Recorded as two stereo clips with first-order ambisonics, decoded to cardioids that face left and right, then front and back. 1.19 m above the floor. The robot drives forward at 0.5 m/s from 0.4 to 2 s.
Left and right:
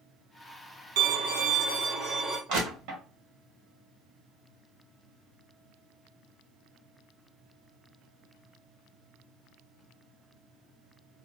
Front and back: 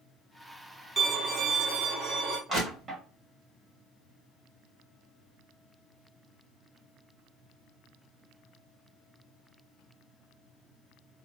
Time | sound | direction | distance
1.0 | a violin | 100° right | 0.6 m
2.5 | crushing | 120° right | 1.3 m